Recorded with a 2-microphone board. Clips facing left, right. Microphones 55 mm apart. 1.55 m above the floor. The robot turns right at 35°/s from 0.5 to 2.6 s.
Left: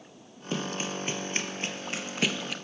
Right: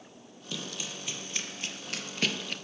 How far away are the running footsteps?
About 2.5 m.